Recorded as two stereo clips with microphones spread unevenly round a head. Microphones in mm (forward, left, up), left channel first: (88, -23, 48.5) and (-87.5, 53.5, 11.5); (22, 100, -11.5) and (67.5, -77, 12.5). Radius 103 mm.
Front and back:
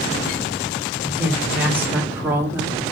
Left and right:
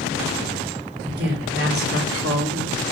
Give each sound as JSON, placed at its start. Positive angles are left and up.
{"t": 1.0, "sound": "a woman speaking", "azimuth_deg": -120, "distance_m": 5.5}